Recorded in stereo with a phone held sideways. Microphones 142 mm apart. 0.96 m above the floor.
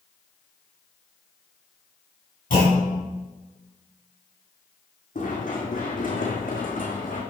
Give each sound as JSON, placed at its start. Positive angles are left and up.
{"t": 2.5, "sound": "a clunk", "side_deg": 85, "distance_m": 5.5}
{"t": 5.2, "sound": "running footsteps", "side_deg": 70, "distance_m": 3.0}